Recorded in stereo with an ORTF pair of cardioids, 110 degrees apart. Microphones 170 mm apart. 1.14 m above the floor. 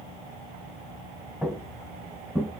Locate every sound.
1.4 s footsteps: straight ahead, 3.5 m